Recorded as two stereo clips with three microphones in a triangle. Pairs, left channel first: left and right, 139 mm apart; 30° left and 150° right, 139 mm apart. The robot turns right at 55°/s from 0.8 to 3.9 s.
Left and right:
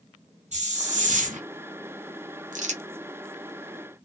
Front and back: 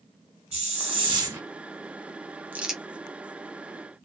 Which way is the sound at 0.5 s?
115° right.